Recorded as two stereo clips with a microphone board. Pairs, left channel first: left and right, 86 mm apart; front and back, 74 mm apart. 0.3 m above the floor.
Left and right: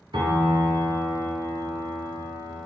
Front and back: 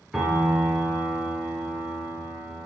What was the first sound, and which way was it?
A piano, 100° right.